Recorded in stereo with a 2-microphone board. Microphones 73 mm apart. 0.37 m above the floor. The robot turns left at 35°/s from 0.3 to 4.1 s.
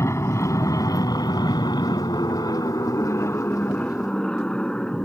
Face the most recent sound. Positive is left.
turn(degrees=15)  # may be behind; listen again after turning